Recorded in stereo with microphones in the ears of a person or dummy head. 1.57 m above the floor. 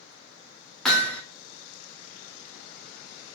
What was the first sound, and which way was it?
Hammering, 5° left (ahead or behind).